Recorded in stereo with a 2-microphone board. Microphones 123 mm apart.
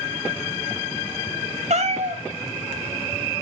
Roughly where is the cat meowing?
Right.